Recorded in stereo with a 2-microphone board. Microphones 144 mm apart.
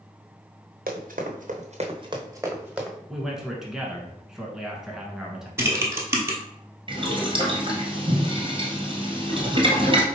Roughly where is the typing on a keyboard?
Centre.